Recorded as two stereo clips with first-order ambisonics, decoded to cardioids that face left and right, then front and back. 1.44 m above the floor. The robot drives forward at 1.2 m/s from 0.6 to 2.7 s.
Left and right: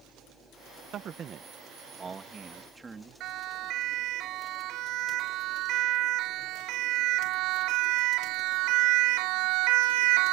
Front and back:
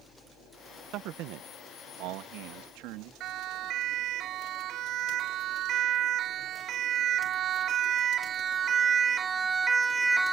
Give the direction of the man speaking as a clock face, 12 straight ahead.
5 o'clock.